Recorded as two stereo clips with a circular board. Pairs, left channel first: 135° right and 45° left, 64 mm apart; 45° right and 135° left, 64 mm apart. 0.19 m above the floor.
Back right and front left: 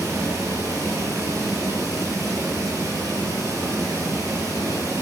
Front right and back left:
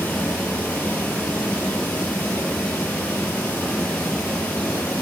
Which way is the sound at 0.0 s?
20° left.